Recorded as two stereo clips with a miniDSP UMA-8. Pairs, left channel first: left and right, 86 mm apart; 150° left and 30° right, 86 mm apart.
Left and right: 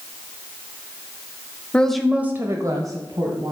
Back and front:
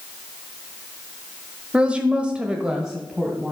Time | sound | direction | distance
1.7 | a woman speaking | 30° left | 1.0 m